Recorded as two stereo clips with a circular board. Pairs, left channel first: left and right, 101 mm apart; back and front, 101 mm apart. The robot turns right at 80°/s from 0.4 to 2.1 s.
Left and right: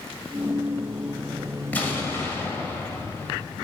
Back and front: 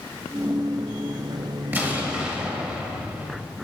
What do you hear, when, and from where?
1.7 s an explosion: 40° left, 1.4 m; by 3.5 s 65° left, 1.4 m